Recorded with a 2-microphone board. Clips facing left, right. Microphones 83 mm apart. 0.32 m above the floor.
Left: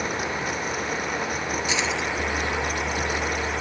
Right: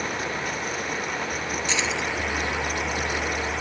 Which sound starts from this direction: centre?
Keys jangling, at 1.7 s.